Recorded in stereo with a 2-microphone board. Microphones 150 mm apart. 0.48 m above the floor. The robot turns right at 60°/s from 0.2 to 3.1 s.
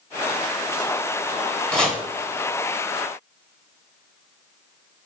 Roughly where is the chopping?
Centre.